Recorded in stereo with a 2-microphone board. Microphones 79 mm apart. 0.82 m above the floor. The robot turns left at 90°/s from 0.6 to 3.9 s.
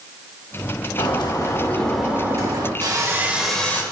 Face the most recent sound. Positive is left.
turn(degrees=145)